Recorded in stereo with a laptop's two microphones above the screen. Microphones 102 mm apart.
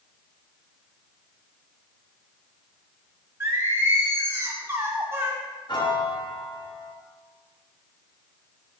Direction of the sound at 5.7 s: 45° left (ahead or behind).